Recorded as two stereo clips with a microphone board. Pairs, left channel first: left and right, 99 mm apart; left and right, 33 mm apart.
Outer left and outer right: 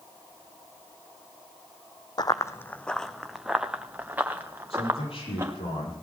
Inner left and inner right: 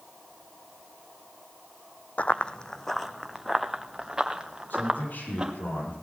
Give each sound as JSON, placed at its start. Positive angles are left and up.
{"t": 2.2, "sound": "running footsteps", "side_deg": 45, "distance_m": 0.6}
{"t": 4.7, "sound": "a man speaking", "side_deg": 70, "distance_m": 8.0}